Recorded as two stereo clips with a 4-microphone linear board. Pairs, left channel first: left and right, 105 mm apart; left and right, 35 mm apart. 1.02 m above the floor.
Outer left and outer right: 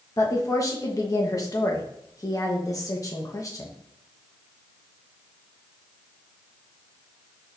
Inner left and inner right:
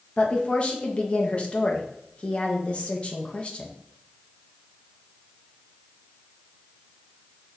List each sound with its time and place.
0.2 s a woman speaking: 35° left (ahead or behind), 0.9 m